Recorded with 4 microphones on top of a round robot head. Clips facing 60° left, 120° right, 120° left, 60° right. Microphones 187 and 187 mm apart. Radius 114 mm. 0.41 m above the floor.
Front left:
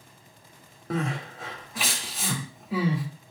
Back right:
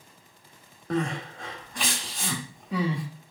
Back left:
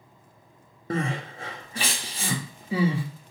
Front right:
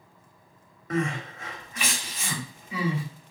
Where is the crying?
145° left, 0.9 m.